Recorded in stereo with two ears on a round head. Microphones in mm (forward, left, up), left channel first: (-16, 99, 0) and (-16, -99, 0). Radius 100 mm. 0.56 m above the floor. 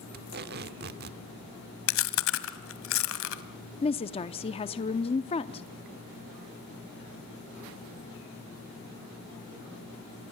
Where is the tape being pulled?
45° right (ahead or behind), 1.0 m.